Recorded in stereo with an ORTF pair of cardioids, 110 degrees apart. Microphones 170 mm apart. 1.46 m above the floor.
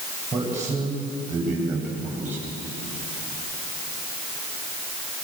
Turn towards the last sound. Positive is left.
turn(degrees=-10)